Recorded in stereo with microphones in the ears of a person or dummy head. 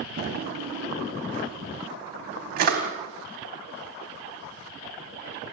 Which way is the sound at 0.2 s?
65° right (ahead or behind).